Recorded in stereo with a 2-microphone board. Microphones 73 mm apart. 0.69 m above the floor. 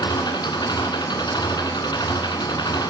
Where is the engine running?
85° left, 4 m.